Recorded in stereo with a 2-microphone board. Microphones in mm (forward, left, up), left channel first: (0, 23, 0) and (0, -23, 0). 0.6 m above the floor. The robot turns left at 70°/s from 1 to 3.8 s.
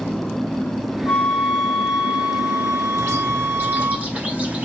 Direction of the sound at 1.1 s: 50° left.